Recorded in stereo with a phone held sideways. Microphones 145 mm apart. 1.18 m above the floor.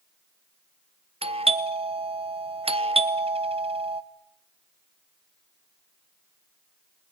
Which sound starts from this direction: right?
A doorbell, at 1.2 s.